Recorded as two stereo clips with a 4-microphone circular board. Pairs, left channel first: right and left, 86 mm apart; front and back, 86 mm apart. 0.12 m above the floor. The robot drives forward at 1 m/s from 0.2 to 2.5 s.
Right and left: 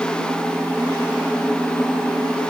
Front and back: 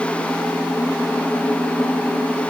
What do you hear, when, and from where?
Only background noise.